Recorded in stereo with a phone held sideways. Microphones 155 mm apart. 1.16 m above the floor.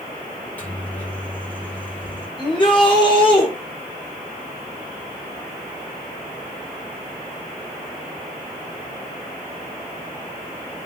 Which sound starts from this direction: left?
A shout, at 2.4 s.